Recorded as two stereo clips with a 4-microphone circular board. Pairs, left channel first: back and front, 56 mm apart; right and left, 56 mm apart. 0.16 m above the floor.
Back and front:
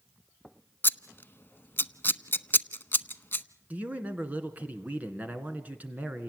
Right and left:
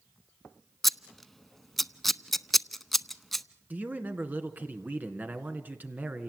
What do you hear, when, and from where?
0.8 s scissors: 175° right, 0.7 m
3.7 s a man speaking: 45° left, 2.5 m